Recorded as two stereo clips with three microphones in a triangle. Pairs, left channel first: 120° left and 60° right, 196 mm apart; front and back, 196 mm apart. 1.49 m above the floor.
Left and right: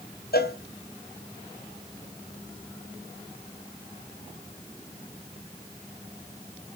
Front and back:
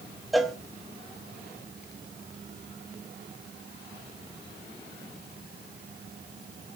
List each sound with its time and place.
0.3 s a cowbell: 90° left, 1.2 m